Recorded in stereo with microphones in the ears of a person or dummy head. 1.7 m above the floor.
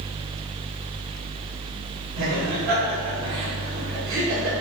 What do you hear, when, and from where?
2.2 s laughter: 75° right (ahead or behind), 3 m